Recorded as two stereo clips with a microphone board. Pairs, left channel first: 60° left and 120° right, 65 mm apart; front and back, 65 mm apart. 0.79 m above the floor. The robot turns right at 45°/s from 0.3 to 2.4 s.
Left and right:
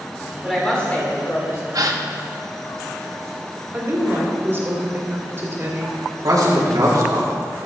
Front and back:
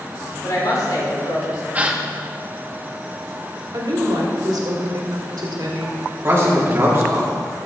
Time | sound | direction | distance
0.4 | a woman speaking | 30° right | 3 m
1.7 | a gasp | 115° right | 0.8 m
3.7 | a woman speaking | 175° right | 2 m
6.2 | a man speaking | 130° right | 2.0 m